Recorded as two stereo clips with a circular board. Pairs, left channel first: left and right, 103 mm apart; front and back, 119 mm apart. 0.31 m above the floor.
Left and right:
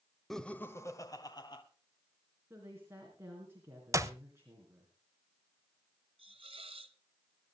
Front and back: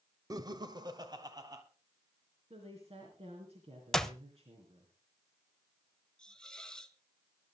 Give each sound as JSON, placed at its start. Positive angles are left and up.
{"t": 0.3, "sound": "laughter", "azimuth_deg": 175, "distance_m": 0.9}
{"t": 2.5, "sound": "a woman speaking", "azimuth_deg": -155, "distance_m": 4.0}
{"t": 3.9, "sound": "a clap", "azimuth_deg": -85, "distance_m": 0.9}
{"t": 6.2, "sound": "a hiss", "azimuth_deg": -85, "distance_m": 1.0}